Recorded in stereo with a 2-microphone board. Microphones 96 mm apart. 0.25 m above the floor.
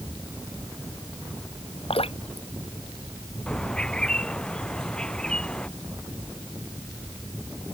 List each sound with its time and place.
1.9 s dripping: 80° left
3.5 s a bird: 10° left (ahead or behind)